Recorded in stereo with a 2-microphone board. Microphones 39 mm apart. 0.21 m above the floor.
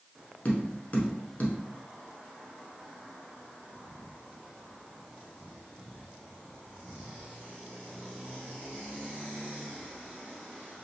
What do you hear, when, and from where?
0.5 s tapping: 45° left (ahead or behind), 0.9 m